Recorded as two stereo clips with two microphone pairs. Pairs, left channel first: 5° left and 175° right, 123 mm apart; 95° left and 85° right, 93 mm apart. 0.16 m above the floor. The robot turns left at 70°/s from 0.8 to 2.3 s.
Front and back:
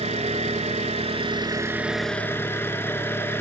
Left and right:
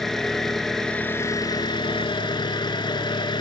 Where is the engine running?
175° left, 0.8 m; by 3.4 s 70° left, 0.8 m.